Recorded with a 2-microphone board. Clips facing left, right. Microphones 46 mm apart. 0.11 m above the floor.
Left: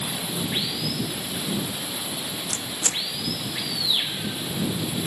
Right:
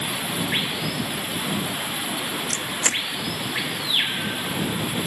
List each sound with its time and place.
0.0 s running water: 35° right (ahead or behind)
2.5 s a camera shutter: 55° right (ahead or behind)